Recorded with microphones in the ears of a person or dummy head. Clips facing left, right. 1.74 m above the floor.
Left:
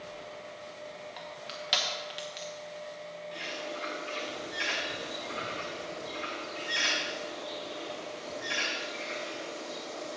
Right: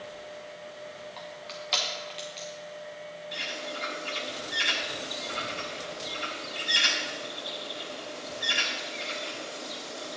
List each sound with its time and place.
1.2 s crushing: 10° left (ahead or behind), 1.1 m
3.3 s a bird: 40° right (ahead or behind), 2 m